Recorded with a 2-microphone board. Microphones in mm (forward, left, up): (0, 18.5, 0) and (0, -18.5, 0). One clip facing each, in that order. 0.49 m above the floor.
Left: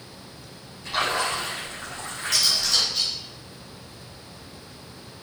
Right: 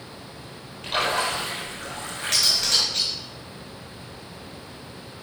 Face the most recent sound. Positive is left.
turn(degrees=-60)  # may be behind; listen again after turning